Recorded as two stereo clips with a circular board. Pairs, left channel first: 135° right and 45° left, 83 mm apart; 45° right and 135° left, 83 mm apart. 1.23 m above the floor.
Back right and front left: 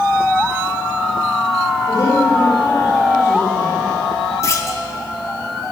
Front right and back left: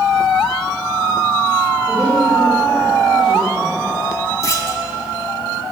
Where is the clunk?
90° right, 1.1 m.